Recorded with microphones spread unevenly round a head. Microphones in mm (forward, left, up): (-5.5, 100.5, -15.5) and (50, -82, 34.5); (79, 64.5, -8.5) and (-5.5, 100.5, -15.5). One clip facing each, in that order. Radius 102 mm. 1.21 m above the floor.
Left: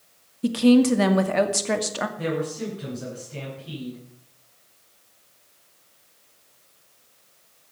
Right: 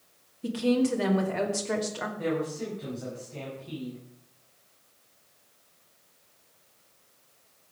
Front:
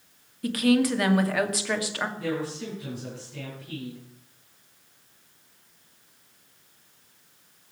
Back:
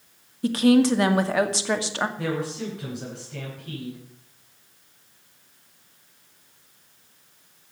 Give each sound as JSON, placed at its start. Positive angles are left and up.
{"t": 0.4, "sound": "a woman speaking", "azimuth_deg": 95, "distance_m": 2.0}
{"t": 2.2, "sound": "a man speaking", "azimuth_deg": 165, "distance_m": 9.0}